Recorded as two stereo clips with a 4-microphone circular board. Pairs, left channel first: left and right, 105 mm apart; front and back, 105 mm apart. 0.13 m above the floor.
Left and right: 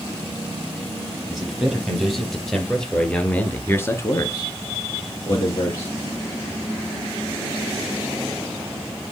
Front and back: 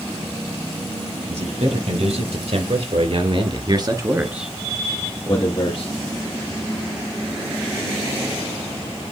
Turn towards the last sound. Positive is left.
turn(degrees=40)